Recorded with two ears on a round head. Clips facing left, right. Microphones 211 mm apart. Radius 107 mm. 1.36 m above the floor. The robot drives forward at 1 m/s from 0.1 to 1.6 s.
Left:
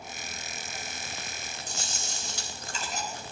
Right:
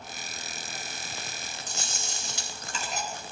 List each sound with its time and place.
1.7 s chewing: 55° right (ahead or behind), 4.5 m